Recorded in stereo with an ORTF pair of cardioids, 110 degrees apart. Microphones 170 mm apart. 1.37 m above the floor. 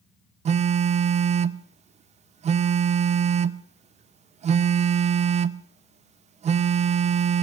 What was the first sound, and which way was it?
A phone buzzing, 45° right.